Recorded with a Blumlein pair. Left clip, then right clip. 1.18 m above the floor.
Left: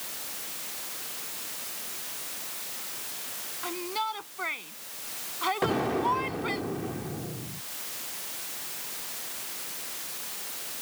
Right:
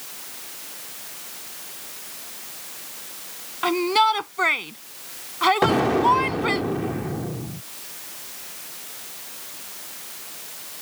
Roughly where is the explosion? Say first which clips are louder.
Right 8 dB; ahead right.